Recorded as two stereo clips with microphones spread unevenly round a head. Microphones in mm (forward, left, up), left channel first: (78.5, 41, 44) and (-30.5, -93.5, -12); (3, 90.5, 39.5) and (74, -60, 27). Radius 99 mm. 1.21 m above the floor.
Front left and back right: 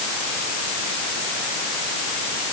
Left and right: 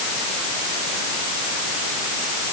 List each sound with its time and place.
Only background noise.